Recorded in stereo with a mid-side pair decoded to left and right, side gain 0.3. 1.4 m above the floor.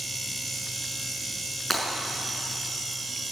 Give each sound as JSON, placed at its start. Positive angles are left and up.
{"t": 1.7, "sound": "breaking glass", "azimuth_deg": 15, "distance_m": 5.5}